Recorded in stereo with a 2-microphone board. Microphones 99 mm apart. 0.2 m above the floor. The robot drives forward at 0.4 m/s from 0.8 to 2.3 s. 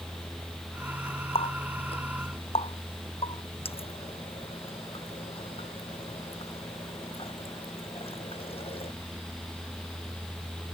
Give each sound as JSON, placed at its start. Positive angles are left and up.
{"t": 1.4, "sound": "a running tap", "side_deg": 75}